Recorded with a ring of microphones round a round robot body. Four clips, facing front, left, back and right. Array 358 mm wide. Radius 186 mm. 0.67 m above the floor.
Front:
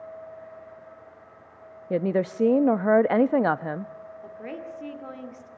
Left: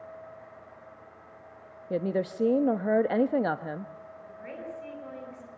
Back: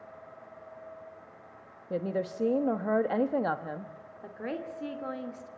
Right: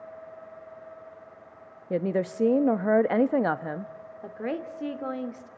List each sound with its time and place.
1.9 s a woman speaking: 20° right, 0.7 m
4.2 s a woman speaking: 95° right, 2 m